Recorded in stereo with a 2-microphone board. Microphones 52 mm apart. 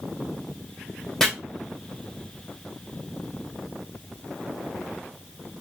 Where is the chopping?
10° left (ahead or behind), 2 m.